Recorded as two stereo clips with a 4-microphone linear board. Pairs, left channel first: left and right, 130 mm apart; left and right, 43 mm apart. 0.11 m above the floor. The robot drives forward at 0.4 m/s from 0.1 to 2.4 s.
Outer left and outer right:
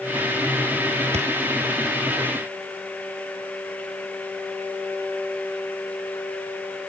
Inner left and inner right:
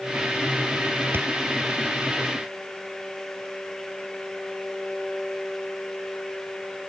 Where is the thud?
55° right (ahead or behind); by 1.3 s 60° right (ahead or behind).